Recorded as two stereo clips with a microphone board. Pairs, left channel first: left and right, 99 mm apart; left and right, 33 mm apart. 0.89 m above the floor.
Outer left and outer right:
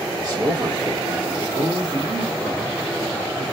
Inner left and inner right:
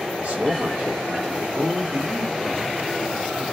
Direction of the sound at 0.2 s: 45° right (ahead or behind).